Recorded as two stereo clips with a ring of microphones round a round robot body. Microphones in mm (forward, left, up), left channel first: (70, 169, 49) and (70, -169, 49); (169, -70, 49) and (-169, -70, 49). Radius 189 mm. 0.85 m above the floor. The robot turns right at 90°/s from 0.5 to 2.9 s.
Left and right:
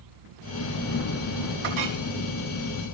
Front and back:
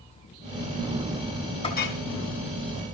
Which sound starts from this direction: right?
A clink, at 1.6 s.